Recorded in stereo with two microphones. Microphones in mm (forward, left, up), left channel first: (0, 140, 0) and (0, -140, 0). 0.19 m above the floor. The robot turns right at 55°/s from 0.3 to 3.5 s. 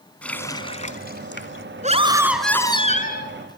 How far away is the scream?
About 2.5 m.